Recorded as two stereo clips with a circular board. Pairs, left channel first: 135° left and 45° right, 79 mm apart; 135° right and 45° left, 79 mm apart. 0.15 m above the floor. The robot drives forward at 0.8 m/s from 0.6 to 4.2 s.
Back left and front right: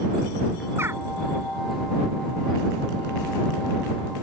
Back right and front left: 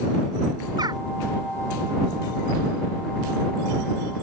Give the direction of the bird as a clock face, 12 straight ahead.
12 o'clock.